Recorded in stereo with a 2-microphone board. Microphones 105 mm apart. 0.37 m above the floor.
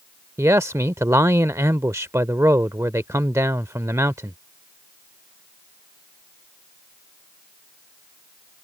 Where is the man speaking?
30° right (ahead or behind).